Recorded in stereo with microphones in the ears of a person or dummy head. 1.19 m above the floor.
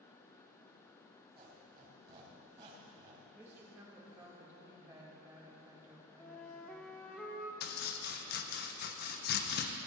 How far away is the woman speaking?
About 5.5 m.